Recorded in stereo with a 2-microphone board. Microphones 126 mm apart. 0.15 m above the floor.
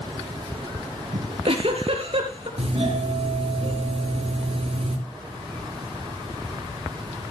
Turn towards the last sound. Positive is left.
turn(degrees=-55)  # may be behind; listen again after turning